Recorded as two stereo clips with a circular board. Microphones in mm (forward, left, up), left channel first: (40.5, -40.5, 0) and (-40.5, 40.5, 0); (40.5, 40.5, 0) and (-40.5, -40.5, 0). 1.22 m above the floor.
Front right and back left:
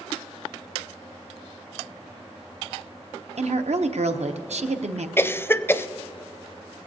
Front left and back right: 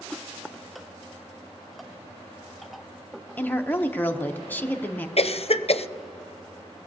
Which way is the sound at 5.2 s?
25° left.